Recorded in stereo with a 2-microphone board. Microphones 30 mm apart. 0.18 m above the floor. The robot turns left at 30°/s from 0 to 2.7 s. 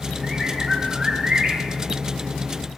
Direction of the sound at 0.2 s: 5° left.